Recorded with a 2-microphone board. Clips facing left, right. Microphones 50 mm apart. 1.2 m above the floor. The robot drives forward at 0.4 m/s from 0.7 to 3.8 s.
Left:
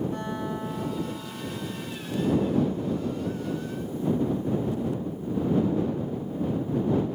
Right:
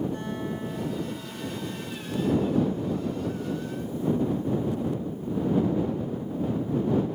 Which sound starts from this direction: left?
A guitar, at 0.1 s.